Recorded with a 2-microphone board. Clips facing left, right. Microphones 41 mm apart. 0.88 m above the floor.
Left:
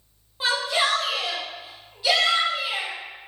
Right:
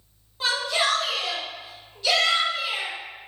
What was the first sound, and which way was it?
A shout, 10° left (ahead or behind).